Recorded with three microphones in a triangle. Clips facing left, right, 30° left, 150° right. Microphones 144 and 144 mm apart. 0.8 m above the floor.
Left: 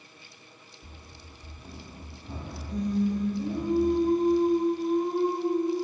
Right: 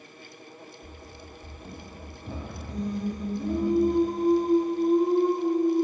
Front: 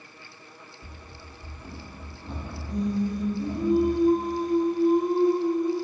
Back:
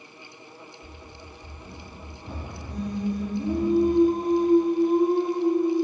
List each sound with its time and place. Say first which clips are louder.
0.8 s running footsteps: right 6 dB, back 2 dB; 5° left, 1.3 m; by 3.7 s 95° right, 3 m
2.7 s singing: left 4 dB, front 2 dB; 140° right, 2 m